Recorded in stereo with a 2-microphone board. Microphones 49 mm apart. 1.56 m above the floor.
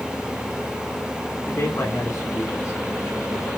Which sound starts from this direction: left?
A man speaking, at 1.5 s.